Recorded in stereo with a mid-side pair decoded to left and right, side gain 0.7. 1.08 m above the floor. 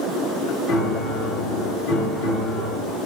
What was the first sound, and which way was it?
A piano, 60° left.